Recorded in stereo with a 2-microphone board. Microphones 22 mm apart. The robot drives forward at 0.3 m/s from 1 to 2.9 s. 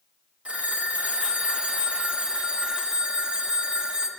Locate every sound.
0.5 s a phone ringing: 70° right (ahead or behind), 0.6 m; by 4.1 s 40° right (ahead or behind), 0.9 m